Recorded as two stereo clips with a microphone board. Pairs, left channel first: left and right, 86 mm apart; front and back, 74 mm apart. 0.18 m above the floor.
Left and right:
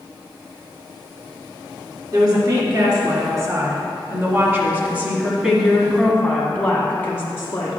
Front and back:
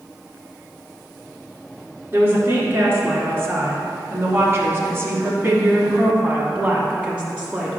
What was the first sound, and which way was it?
A woman speaking, 125° right.